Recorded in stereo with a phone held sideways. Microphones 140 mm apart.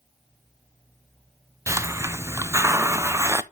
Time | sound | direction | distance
1.7 | a hiss | 20° right (ahead or behind) | 0.5 m